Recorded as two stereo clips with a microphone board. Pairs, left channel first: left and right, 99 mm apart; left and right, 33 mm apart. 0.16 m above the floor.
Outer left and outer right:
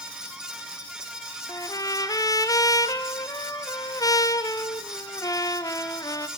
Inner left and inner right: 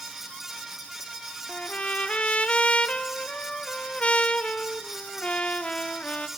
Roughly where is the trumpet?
Left.